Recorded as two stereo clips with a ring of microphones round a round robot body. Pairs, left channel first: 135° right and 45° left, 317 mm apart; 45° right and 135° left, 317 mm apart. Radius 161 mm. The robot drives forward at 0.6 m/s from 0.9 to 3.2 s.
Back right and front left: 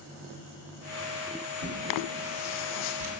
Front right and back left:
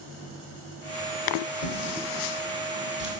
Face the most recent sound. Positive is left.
turn(degrees=60)